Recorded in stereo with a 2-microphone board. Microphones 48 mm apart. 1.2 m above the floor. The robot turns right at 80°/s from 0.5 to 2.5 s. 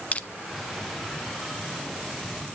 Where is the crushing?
30° left (ahead or behind), 0.6 m.